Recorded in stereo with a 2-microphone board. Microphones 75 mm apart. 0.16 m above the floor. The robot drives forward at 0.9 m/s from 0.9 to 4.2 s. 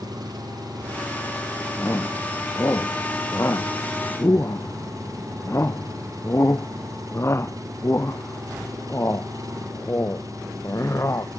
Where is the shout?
35° left (ahead or behind); by 11.3 s 40° left (ahead or behind).